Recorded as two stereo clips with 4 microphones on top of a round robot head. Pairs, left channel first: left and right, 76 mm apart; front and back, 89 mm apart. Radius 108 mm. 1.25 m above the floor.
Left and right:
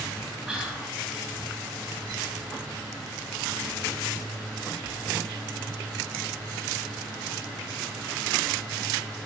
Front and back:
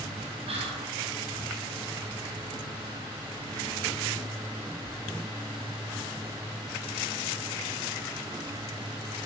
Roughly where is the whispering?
Behind.